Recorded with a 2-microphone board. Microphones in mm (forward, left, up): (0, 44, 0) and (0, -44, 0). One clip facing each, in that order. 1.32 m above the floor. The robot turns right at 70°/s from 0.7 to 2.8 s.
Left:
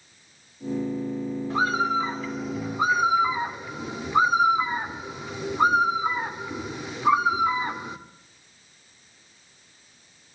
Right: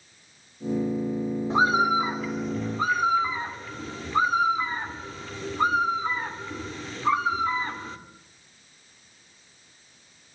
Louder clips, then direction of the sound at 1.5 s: Right 3 dB; 20° right (ahead or behind).